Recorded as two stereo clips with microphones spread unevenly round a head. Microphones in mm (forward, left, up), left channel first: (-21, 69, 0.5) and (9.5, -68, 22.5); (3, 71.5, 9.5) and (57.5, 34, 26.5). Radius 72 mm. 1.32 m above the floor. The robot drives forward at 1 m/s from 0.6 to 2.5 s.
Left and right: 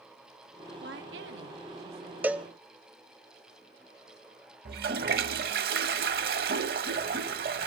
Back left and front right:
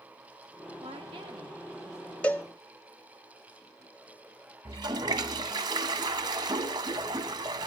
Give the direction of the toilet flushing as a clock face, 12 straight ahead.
2 o'clock.